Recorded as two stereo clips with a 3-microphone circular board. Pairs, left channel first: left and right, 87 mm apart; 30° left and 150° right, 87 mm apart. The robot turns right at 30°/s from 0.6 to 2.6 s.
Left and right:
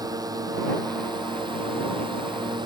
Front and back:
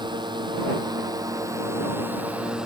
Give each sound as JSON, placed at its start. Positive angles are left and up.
{"t": 0.0, "sound": "a drone", "azimuth_deg": -130}